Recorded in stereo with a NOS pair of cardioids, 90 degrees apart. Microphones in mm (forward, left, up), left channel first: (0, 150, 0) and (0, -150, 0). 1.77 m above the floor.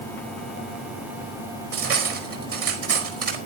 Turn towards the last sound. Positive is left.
turn(degrees=-50)